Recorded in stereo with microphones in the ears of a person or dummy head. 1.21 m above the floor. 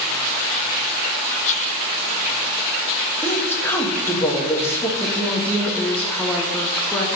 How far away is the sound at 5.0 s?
About 1.1 m.